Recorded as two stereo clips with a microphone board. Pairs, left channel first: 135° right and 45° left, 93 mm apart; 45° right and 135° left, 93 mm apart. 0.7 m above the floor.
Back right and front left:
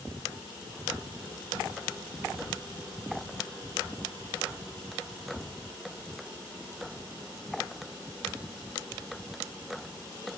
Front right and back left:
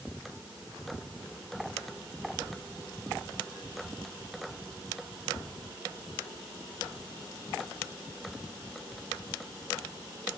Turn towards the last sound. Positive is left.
No sound to turn to.